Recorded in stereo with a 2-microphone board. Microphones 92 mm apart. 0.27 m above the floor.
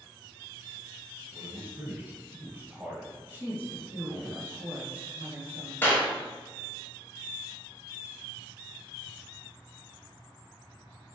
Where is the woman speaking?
20° right (ahead or behind), 1.2 m.